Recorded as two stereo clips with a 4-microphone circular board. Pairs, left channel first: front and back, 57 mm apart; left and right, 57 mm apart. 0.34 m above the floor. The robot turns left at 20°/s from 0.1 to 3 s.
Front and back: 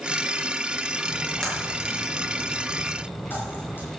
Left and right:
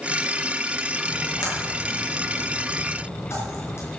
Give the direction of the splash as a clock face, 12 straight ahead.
9 o'clock.